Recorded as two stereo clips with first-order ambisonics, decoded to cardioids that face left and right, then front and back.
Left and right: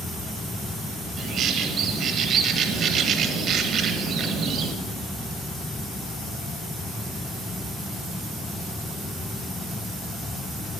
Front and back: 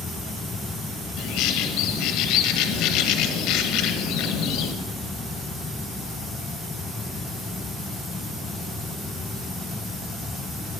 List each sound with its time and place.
1.2 s a bird: 35° right, 1.1 m